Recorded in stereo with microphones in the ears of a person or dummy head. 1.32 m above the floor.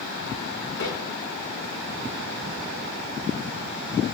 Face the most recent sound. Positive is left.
turn(degrees=55)  # may be behind; listen again after turning